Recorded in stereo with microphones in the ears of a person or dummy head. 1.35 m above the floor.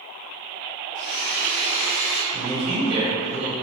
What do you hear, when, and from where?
0.9 s a blender: 40° left (ahead or behind), 0.5 m
2.3 s a man speaking: 60° right (ahead or behind), 1.4 m